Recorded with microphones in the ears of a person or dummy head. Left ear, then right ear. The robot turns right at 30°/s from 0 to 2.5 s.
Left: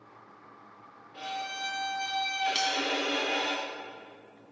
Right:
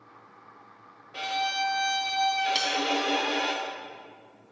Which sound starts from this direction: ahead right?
A violin, at 1.1 s.